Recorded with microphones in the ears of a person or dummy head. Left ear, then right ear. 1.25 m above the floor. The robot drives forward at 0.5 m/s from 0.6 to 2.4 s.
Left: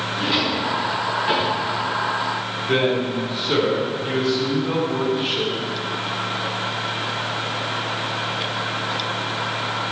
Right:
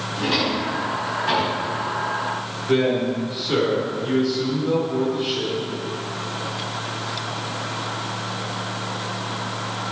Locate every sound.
0.2 s a drawer: 10° right (ahead or behind), 5 m
2.7 s a man speaking: 15° left (ahead or behind), 3.5 m